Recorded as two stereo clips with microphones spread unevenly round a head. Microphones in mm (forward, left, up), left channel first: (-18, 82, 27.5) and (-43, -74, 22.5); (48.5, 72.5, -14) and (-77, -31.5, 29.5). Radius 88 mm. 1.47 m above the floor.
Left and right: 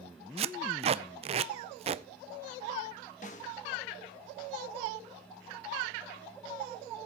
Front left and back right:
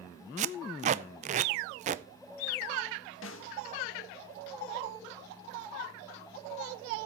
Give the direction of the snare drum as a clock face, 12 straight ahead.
11 o'clock.